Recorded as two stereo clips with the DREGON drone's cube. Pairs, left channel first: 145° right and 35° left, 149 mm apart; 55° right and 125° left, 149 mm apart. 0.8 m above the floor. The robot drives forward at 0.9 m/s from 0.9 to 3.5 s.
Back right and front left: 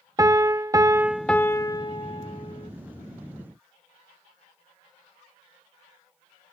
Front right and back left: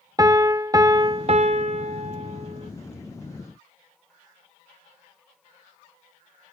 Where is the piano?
80° left; by 2.7 s 170° left.